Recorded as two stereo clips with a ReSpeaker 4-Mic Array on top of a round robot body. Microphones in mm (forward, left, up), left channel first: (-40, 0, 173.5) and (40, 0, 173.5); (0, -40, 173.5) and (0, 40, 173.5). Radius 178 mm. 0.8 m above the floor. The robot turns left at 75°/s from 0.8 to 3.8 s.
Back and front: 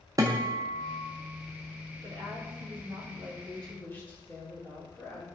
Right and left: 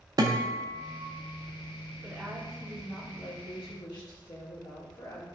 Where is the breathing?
No breathing in this recording.